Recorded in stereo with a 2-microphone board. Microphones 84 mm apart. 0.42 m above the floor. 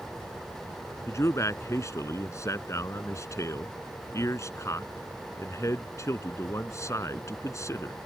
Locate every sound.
1.1 s a man speaking: 35° left (ahead or behind)